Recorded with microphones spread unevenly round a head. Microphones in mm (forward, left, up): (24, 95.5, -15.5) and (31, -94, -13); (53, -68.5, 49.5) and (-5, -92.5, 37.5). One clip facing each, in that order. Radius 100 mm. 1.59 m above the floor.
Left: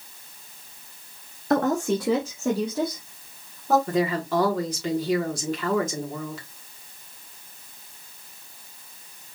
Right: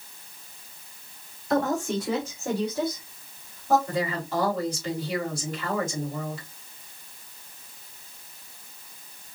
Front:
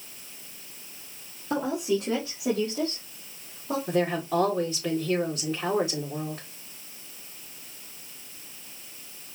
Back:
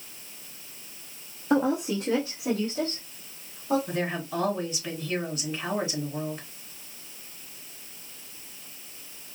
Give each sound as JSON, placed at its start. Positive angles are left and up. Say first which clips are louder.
{"t": 1.5, "sound": "a woman speaking", "louder": "left 3 dB, back 2 dB", "azimuth_deg": 120, "distance_m": 0.7}
{"t": 3.9, "sound": "a woman speaking", "louder": "left 5 dB, front 5 dB", "azimuth_deg": 70, "distance_m": 1.7}